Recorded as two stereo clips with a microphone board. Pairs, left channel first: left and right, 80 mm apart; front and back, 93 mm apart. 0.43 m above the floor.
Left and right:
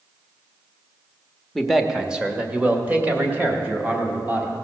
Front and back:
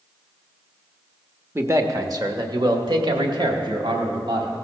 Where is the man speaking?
170° left, 0.8 m; by 4.5 s 155° right, 2.5 m.